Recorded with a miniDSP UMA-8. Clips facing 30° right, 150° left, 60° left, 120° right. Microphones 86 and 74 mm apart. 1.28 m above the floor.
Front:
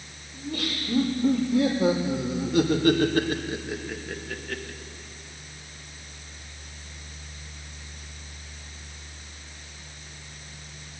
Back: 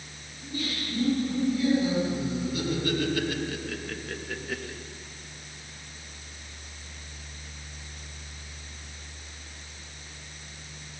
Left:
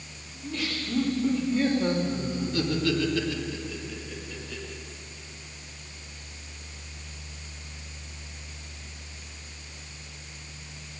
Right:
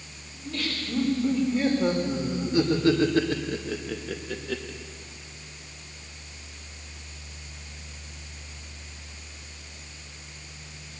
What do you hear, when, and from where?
0.3 s laughter: 20° right, 5 m; by 4.8 s 135° right, 3 m